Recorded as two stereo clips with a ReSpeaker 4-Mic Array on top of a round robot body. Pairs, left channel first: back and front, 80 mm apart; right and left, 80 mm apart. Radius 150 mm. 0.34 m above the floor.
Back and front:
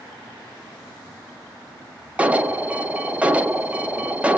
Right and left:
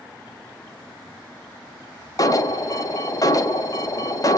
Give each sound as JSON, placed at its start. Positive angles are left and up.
{"t": 2.2, "sound": "an alarm", "azimuth_deg": -70, "distance_m": 0.6}